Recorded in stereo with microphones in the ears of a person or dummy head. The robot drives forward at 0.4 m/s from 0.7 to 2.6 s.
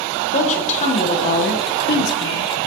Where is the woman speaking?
40° left (ahead or behind), 1.1 m; by 2.7 s 80° left, 0.7 m.